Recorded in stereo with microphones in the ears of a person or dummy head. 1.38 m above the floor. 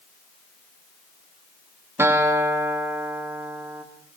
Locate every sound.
2.0 s a guitar: 15° right (ahead or behind), 2.5 m